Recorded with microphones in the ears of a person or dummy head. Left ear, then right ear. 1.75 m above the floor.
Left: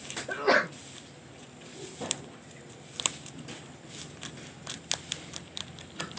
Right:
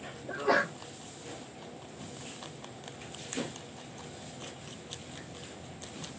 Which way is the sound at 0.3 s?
75° left (ahead or behind).